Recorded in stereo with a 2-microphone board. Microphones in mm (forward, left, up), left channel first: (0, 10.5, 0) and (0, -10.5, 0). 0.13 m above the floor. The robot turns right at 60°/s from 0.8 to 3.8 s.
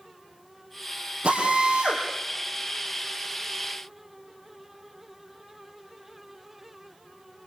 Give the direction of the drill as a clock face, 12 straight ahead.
4 o'clock.